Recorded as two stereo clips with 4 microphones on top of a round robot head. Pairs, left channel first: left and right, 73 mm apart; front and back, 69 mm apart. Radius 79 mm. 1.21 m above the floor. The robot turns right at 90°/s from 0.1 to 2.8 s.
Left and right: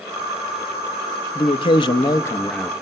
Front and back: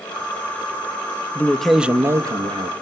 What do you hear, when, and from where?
1.4 s a man speaking: 60° left, 1.1 m; by 2.7 s straight behind, 1.1 m